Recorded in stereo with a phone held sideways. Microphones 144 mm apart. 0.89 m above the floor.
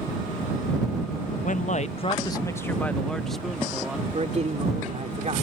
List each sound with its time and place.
1.4 s a man speaking: 60° left (ahead or behind); by 4.0 s 5° right (ahead or behind)
4.1 s a man speaking: 50° right (ahead or behind)